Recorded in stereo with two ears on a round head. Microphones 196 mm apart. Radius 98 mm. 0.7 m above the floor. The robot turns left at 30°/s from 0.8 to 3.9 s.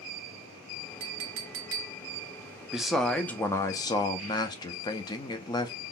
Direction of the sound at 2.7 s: 175° right.